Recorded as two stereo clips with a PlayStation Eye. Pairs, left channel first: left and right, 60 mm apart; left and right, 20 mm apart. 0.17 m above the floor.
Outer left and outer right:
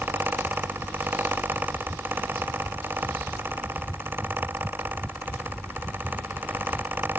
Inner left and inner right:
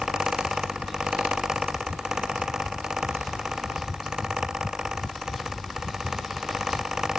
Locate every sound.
Only background noise.